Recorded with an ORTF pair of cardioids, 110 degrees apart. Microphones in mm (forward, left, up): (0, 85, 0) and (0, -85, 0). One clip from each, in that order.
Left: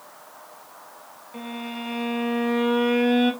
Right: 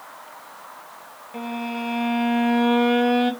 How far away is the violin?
About 0.6 m.